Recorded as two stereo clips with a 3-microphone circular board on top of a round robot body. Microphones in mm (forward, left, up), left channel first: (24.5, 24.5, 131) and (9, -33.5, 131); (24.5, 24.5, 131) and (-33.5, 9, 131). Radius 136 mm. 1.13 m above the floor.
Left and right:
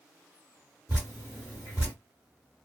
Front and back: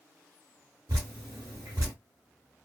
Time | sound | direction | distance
0.9 | dripping | 165° right | 0.7 m